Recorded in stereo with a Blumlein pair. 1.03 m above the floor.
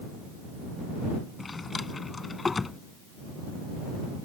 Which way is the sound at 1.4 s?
15° left.